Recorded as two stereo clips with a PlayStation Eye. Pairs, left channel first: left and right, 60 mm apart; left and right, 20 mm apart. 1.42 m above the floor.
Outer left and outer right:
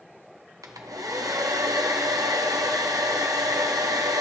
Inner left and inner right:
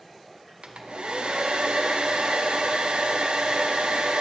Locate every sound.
0.6 s a hair dryer: 75° right (ahead or behind), 1.1 m